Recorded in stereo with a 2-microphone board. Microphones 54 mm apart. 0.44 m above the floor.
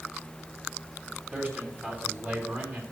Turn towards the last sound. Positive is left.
turn(degrees=-35)  # may be behind; listen again after turning